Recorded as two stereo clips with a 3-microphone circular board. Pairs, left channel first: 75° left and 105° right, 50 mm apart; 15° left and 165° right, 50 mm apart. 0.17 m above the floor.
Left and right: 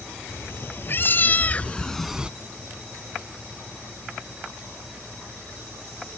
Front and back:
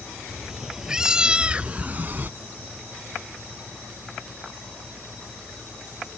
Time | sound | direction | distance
0.3 | a cat meowing | 115° left | ?